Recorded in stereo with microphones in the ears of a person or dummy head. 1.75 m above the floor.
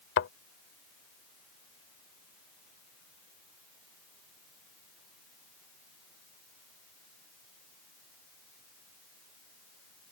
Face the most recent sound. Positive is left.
turn(degrees=55)  # may be behind; listen again after turning